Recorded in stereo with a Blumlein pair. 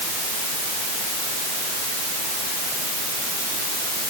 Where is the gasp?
I don't hear a gasp.